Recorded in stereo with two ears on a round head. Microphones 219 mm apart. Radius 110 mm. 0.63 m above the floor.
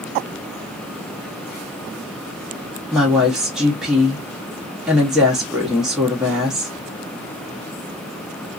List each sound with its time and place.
2.9 s a woman speaking: 5° right (ahead or behind), 0.9 m